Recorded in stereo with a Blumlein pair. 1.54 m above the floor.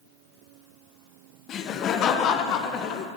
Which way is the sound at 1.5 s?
30° left.